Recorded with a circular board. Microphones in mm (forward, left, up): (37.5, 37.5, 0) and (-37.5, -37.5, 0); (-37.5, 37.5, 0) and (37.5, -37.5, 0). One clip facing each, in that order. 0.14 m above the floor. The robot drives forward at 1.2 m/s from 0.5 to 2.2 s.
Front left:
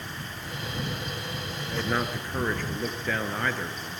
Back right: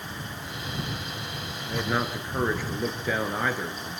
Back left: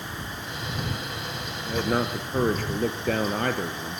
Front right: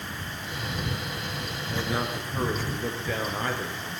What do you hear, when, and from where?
1.7 s a man speaking: 135° left, 2 m; by 4.0 s 145° left, 2.5 m